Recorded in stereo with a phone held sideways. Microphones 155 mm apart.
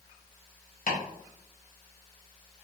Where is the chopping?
65° left (ahead or behind), 0.9 m.